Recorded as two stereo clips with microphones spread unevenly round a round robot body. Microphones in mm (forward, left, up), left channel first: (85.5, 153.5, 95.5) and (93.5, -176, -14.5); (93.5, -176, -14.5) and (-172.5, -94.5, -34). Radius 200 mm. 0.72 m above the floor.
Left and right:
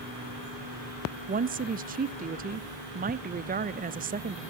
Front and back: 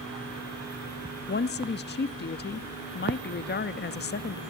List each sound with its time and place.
1.3 s a woman speaking: 60° right, 0.7 m